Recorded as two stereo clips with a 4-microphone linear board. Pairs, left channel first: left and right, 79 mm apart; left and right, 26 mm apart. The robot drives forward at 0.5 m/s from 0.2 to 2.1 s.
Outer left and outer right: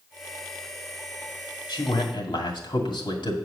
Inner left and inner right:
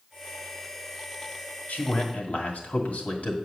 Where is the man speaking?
75° left (ahead or behind), 2 m; by 3.4 s 70° left (ahead or behind), 2 m.